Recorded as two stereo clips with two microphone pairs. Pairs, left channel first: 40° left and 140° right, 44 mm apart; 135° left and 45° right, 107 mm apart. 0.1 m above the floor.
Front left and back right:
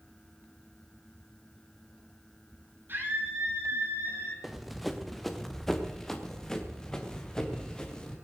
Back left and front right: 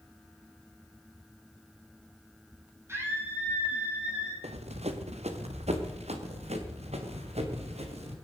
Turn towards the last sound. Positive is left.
turn(degrees=-30)